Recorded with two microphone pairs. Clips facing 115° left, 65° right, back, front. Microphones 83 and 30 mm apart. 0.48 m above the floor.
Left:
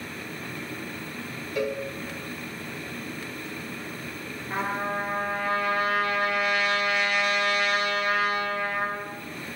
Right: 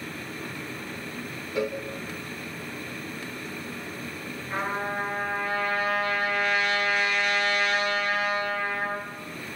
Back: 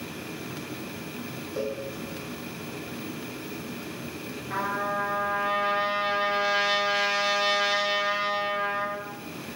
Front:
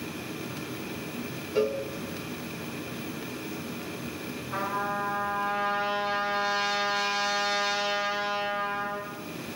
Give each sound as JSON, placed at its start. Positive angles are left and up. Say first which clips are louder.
{"t": 1.6, "sound": "a cowbell", "louder": "even, front 5 dB", "azimuth_deg": 0, "distance_m": 0.9}
{"t": 4.5, "sound": "a trumpet", "louder": "left 1 dB, back 2 dB", "azimuth_deg": -165, "distance_m": 4.0}